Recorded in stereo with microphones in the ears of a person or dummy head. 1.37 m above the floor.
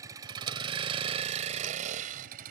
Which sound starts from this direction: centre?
A vehicle, at 0.0 s.